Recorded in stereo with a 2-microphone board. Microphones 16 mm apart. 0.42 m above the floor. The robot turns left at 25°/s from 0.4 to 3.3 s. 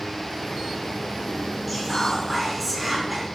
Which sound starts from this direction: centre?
Whispering, at 1.7 s.